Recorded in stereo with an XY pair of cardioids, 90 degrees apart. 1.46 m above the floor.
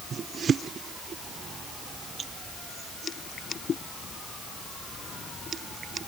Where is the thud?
I don't hear a thud.